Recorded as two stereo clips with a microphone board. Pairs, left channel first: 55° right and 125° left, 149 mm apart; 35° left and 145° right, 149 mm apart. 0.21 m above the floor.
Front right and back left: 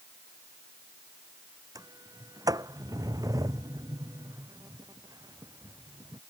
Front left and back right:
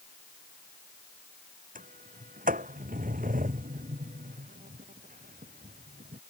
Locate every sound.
1.8 s a sliding door: 170° right